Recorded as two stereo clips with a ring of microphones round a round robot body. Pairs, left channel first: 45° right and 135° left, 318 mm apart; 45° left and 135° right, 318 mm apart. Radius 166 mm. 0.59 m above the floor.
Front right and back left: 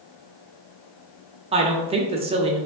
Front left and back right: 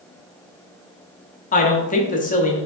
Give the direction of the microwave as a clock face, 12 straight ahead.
I don't hear a microwave.